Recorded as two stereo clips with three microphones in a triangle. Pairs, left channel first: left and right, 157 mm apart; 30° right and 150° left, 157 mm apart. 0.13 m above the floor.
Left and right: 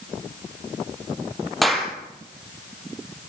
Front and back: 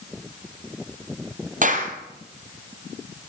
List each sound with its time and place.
1.6 s a clap: straight behind, 3 m